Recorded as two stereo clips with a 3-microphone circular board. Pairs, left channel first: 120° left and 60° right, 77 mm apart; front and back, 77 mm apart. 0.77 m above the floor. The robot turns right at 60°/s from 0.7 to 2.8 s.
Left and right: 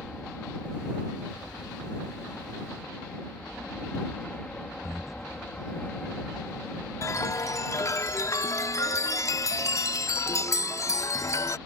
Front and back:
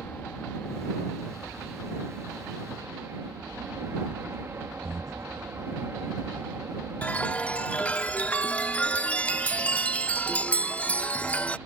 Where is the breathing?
145° right.